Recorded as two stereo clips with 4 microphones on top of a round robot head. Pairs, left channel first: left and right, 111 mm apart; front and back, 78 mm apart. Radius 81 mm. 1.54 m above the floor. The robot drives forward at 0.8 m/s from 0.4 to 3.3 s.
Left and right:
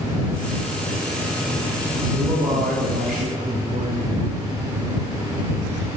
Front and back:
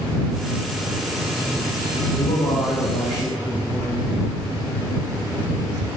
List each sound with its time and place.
2.2 s a man speaking: 30° right, 1.2 m; by 4.3 s 80° right, 0.7 m